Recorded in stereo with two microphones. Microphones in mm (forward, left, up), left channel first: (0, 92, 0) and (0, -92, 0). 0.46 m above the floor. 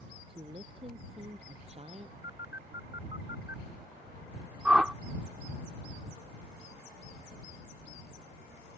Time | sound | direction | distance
0.3 | a woman speaking | 30° right (ahead or behind) | ?
2.2 | a phone buzzing | 80° left | ?
4.7 | a whoosh | 5° right (ahead or behind) | ?